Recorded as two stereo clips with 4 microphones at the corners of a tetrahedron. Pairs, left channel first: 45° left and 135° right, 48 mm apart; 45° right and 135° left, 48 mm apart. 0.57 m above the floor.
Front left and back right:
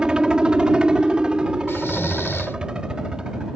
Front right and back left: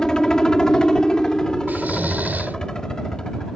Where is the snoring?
80° left.